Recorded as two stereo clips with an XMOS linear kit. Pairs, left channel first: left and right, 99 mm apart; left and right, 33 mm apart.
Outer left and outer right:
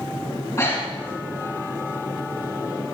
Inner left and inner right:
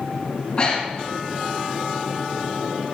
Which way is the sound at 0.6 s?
35° left (ahead or behind).